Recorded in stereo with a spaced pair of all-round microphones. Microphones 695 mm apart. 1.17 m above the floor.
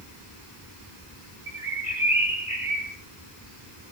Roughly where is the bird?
Right.